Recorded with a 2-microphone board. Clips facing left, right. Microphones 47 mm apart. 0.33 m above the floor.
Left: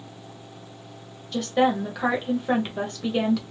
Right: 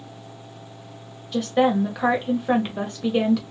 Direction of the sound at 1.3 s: 10° right (ahead or behind).